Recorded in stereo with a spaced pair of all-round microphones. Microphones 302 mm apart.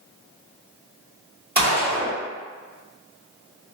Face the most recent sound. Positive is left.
turn(degrees=-30)  # may be behind; listen again after turning